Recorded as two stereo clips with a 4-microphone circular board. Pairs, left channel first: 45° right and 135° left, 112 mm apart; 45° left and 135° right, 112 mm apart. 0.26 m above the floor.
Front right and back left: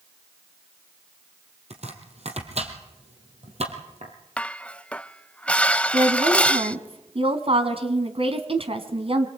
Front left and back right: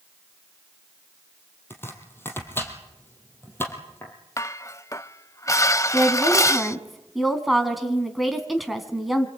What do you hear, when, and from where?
1.7 s chopping: 115° left, 4.5 m
4.4 s dishes clattering: 25° left, 0.7 m
5.9 s a woman speaking: 135° left, 3 m